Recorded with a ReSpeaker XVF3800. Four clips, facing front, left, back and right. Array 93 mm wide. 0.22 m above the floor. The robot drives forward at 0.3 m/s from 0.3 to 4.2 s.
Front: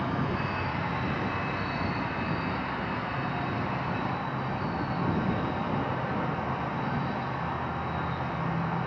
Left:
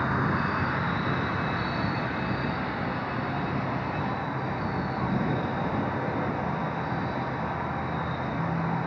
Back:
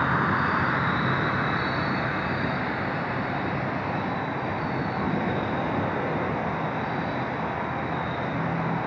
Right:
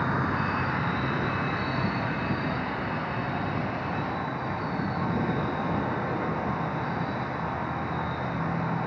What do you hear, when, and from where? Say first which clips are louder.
0.0 s an insect: left 1 dB, back 7 dB; straight behind, 1.3 m